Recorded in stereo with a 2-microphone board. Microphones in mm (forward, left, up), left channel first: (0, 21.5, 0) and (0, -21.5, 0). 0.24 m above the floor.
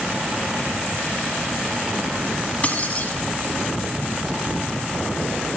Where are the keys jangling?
30° left (ahead or behind), 1.3 m.